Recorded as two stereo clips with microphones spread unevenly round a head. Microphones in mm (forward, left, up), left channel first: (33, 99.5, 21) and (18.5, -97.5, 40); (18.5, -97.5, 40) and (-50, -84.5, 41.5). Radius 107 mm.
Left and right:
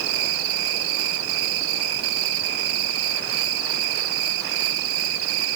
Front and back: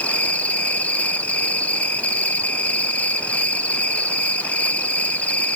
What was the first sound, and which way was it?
An insect, 80° right.